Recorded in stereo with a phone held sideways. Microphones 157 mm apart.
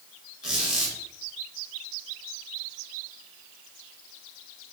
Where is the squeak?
5° right (ahead or behind), 0.7 m.